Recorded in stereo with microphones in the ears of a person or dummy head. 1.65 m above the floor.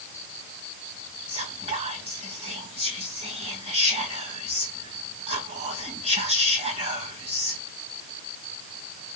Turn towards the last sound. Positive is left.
turn(degrees=-35)  # may be behind; listen again after turning